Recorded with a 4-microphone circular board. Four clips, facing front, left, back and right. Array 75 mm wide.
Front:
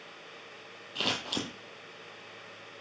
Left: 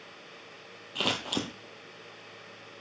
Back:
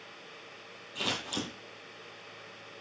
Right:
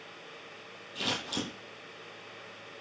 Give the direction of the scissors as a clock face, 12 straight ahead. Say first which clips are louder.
Left 3 dB, front 1 dB; 10 o'clock.